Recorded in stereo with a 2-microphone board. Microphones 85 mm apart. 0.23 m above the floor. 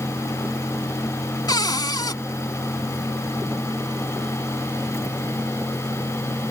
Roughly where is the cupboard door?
Left.